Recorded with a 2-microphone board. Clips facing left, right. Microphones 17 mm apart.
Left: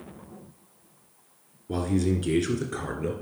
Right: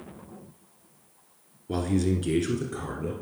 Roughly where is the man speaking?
Centre.